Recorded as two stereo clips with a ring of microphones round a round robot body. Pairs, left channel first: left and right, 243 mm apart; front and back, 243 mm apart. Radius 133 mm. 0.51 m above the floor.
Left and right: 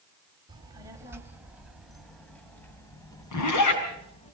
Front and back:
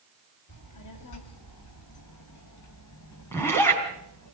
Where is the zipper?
80° left, 4.5 m.